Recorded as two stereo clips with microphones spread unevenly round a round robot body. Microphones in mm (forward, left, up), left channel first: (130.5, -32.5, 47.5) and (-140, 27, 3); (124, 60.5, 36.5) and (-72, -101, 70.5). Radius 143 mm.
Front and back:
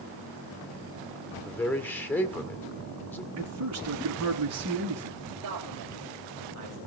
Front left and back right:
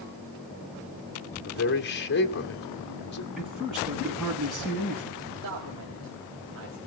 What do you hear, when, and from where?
1.4 s a man speaking: 75° left, 2 m
3.4 s a man speaking: 130° left, 7 m
5.4 s a man speaking: 175° left, 3.5 m